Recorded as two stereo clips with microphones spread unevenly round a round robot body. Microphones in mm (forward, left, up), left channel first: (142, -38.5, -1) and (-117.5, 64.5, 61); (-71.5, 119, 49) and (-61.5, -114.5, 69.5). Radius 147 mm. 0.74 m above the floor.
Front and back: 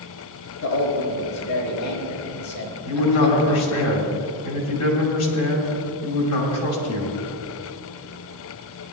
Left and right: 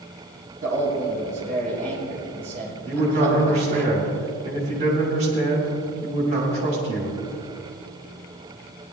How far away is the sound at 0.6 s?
About 4.5 m.